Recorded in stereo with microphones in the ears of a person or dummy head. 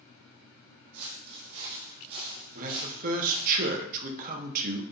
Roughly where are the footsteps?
Right.